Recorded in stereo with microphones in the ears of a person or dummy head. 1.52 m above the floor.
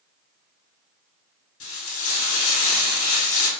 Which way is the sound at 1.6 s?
80° left.